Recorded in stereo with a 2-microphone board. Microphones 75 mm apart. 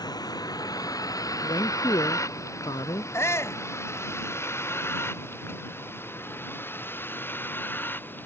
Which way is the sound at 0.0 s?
60° left (ahead or behind).